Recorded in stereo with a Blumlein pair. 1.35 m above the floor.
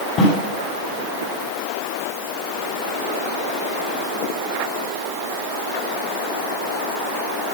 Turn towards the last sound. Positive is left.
turn(degrees=25)